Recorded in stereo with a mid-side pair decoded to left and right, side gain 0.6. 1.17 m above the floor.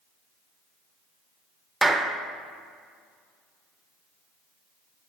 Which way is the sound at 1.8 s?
10° right.